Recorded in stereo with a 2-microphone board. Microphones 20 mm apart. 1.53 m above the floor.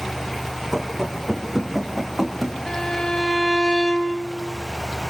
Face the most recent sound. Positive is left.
turn(degrees=45)  # may be behind; listen again after turning